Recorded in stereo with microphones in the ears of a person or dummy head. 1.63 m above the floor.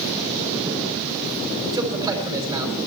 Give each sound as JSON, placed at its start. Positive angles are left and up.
{"t": 1.7, "sound": "a man speaking", "side_deg": -20, "distance_m": 5.5}